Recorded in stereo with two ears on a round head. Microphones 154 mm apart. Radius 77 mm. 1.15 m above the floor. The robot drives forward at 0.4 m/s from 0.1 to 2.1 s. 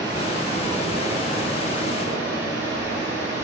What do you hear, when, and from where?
0.0 s running water: 25° right (ahead or behind), 3 m; by 3.5 s 20° right (ahead or behind), 4 m